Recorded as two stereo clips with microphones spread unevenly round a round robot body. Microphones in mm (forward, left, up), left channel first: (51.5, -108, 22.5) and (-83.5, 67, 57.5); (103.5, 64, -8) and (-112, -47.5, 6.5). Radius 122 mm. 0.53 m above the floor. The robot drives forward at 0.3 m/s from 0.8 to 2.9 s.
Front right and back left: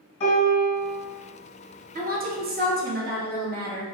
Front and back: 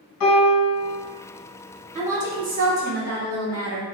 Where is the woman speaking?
160° left, 0.9 m; by 3.9 s 165° left, 1.1 m.